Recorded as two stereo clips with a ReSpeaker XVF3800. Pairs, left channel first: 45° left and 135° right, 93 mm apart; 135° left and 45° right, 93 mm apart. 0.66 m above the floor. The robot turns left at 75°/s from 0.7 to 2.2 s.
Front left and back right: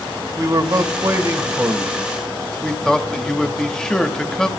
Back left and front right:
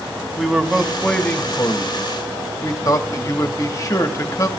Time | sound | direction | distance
0.4 | a man speaking | 125° right | 0.9 m